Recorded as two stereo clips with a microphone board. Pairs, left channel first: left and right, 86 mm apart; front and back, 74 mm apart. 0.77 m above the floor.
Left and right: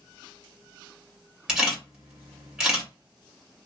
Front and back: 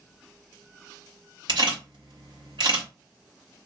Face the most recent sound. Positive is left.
turn(degrees=-170)